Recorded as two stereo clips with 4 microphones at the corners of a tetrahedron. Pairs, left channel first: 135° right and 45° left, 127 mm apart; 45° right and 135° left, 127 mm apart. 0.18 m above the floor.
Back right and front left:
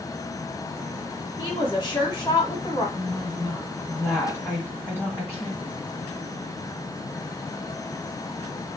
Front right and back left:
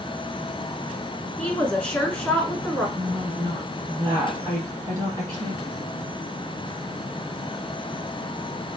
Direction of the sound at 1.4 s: 120° right.